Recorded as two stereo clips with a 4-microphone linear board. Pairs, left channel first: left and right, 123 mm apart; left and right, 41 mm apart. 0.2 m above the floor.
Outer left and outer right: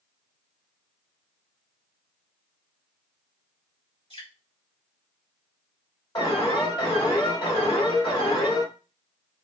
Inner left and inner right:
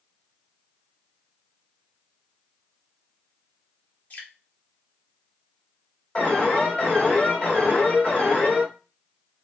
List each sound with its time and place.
4.1 s dripping: 50° left (ahead or behind), 1.6 m
6.2 s an alarm: 35° left (ahead or behind), 2 m